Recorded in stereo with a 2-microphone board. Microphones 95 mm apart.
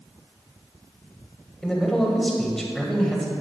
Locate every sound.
1.6 s a man speaking: 5° left (ahead or behind), 1.7 m